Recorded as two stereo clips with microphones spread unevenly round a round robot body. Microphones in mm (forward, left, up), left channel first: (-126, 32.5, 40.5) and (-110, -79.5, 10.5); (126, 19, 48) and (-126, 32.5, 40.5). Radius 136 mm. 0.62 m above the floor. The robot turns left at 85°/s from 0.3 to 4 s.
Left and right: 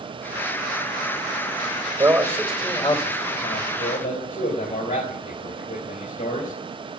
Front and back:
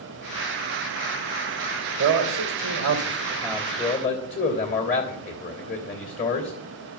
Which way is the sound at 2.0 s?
140° right.